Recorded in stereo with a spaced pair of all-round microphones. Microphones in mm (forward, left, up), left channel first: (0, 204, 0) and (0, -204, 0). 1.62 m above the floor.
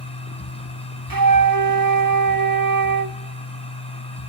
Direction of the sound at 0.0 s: 15° left (ahead or behind).